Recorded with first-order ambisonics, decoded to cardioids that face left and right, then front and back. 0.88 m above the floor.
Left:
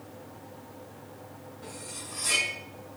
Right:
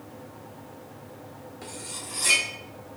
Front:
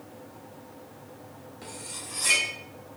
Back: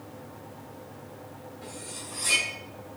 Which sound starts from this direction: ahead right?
Cutlery clinking, at 1.6 s.